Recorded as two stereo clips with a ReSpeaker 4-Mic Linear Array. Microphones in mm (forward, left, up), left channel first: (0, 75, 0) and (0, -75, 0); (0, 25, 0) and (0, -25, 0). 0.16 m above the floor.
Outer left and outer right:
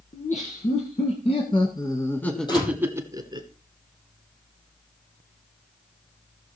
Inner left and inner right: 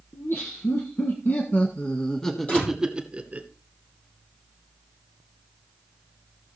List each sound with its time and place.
0.1 s laughter: 55° left (ahead or behind), 2 m; by 3.5 s 30° right (ahead or behind), 1.4 m
2.5 s a door slam: 30° left (ahead or behind), 5 m